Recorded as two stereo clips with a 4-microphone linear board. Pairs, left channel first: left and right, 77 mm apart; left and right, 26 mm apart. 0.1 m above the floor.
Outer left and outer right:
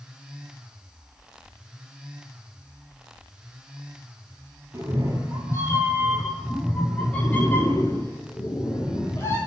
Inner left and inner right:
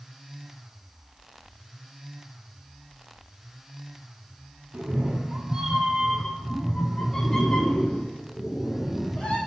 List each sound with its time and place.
4.7 s a cat meowing: 35° right (ahead or behind), 1.1 m; by 9.4 s 35° left (ahead or behind), 1.8 m